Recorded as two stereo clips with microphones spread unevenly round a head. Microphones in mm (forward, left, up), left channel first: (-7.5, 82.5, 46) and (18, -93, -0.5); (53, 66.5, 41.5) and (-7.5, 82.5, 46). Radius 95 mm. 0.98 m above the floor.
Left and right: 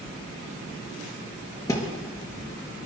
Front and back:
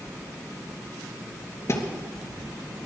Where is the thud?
30° left, 3 m.